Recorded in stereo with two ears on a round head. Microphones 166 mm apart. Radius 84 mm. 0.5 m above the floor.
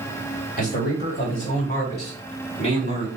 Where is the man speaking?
45° left (ahead or behind), 2.5 m; by 3.1 s 35° left (ahead or behind), 4 m.